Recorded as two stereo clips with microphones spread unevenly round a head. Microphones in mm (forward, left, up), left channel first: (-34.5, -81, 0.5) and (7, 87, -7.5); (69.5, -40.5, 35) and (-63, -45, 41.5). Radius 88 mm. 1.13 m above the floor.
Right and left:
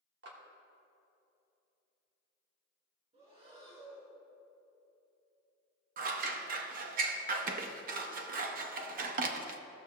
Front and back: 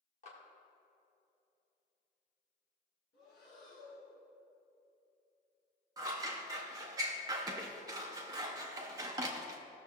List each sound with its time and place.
0.2 s a clap: 45° left, 1.5 m
3.1 s breathing: 20° left, 3 m
6.0 s scissors: 115° left, 0.6 m